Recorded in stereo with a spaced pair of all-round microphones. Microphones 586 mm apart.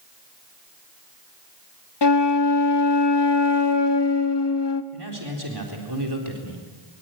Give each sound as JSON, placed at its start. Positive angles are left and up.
{"t": 2.0, "sound": "a flute", "side_deg": 45, "distance_m": 1.0}
{"t": 4.9, "sound": "a man speaking", "side_deg": -40, "distance_m": 4.0}